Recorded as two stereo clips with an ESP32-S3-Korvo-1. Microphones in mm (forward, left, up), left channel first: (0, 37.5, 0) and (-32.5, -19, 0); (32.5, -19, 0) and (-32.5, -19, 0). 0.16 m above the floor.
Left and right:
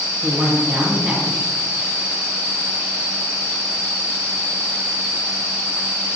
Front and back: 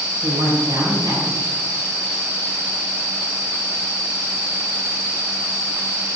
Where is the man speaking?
165° left, 4.5 m.